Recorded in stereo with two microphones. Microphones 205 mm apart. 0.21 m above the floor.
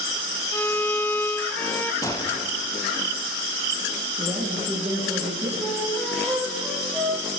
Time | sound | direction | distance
0.5 | a violin | 10° left (ahead or behind) | 0.9 m
2.0 | a gunshot | 15° left (ahead or behind) | 3 m
4.2 | a woman speaking | 15° right (ahead or behind) | 8 m
5.6 | a flute | centre (ahead or behind) | 4.5 m